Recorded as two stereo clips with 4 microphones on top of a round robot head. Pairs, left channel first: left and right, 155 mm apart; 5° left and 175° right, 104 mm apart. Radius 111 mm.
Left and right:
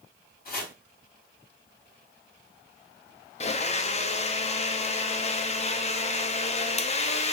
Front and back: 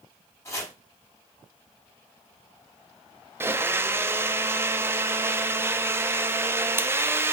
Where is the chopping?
65° left, 5 m.